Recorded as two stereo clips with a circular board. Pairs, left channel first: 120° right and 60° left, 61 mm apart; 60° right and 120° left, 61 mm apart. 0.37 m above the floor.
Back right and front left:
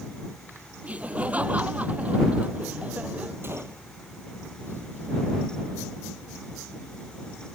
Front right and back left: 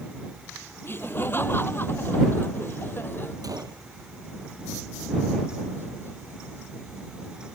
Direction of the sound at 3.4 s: 115° left.